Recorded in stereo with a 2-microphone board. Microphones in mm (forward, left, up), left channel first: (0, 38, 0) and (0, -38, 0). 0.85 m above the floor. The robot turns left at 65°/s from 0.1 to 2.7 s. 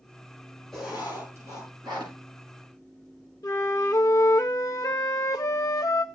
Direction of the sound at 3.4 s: 50° left (ahead or behind).